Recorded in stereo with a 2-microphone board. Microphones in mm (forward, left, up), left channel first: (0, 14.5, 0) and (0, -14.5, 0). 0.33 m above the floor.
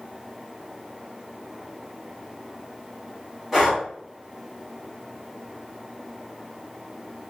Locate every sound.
3.5 s breathing: 5° right (ahead or behind), 1.4 m